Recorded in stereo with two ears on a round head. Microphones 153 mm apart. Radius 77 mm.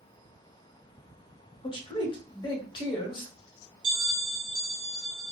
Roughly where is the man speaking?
Left.